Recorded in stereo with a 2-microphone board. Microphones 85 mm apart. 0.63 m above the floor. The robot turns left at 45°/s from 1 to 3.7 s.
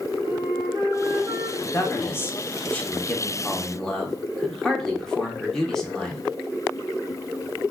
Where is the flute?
45° right (ahead or behind), 1.6 m; by 1.5 s 50° right (ahead or behind), 1.6 m.